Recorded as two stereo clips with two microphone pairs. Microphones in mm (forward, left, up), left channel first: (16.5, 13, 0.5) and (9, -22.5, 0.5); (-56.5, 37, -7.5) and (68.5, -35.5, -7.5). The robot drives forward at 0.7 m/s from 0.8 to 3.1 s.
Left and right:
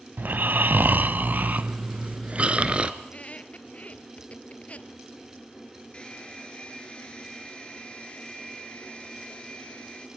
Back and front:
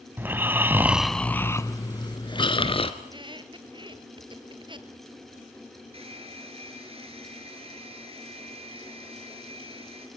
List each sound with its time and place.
0.2 s snoring: 105° right, 0.7 m; by 2.9 s 160° right, 1.7 m
3.0 s a squeak: 25° left, 1.9 m
5.9 s a hair dryer: 15° left, 5 m